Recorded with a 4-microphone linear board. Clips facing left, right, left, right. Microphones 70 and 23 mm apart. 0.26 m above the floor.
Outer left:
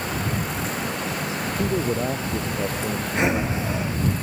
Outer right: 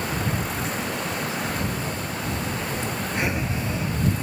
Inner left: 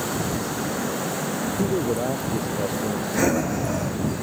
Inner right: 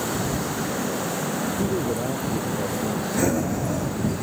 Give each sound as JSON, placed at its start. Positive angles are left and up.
{"t": 1.6, "sound": "a man speaking", "side_deg": 85}
{"t": 3.1, "sound": "breathing", "side_deg": 20}